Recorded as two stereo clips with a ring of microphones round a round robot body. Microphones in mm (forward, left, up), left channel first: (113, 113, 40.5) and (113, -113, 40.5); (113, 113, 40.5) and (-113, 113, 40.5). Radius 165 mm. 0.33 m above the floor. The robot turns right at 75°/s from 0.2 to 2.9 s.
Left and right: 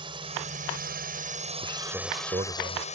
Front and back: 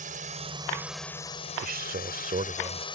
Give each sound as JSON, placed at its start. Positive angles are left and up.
{"t": 0.0, "sound": "a drone", "azimuth_deg": -145}
{"t": 1.6, "sound": "a man speaking", "azimuth_deg": 160}